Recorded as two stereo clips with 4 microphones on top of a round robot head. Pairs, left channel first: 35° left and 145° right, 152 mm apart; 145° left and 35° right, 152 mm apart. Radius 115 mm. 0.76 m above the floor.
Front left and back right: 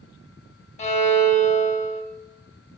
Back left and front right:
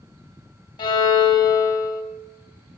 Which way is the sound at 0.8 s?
85° left.